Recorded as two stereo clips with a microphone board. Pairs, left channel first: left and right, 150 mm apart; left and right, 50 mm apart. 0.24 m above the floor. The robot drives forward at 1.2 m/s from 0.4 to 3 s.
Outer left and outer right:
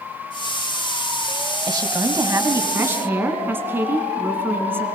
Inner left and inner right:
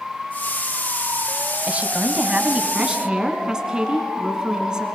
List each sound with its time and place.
1.7 s a woman speaking: 30° right (ahead or behind), 1.0 m; by 4.8 s 15° right (ahead or behind), 1.9 m